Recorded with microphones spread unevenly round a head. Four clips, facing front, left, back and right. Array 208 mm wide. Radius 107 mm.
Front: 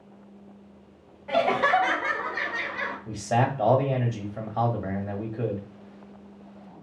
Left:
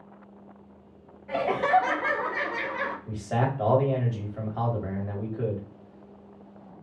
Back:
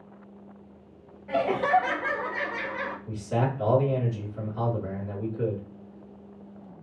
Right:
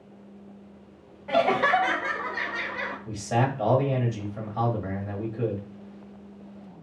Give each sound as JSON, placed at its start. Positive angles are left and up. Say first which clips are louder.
{"t": 1.3, "sound": "laughter", "louder": "right 2 dB, front 1 dB", "azimuth_deg": -105, "distance_m": 0.7}
{"t": 3.1, "sound": "a man speaking", "louder": "right 3 dB, front 4 dB", "azimuth_deg": 0, "distance_m": 1.5}